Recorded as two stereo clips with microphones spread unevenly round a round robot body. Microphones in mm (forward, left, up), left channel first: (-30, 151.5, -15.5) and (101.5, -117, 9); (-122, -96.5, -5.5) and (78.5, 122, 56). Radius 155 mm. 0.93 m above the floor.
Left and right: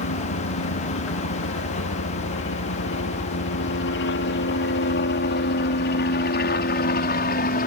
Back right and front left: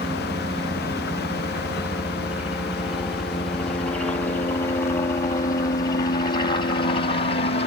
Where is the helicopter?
130° left; by 7.7 s 170° left.